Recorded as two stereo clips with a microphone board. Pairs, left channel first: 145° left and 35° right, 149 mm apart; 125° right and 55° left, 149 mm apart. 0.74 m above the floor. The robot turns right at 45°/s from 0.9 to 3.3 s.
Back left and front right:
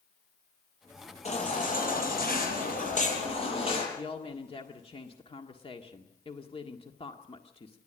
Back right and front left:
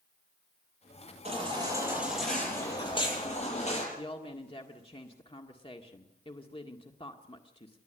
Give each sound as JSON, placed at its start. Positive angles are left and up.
{"t": 1.2, "sound": "a baby crying", "azimuth_deg": 100, "distance_m": 8.5}
{"t": 4.0, "sound": "a woman speaking", "azimuth_deg": -170, "distance_m": 1.7}